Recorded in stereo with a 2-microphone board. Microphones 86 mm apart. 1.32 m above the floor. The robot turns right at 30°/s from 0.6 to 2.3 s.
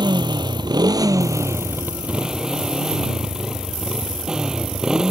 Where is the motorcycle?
60° right; by 5.1 s 10° right.